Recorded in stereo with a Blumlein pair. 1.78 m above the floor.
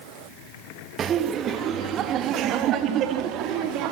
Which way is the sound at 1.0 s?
25° right.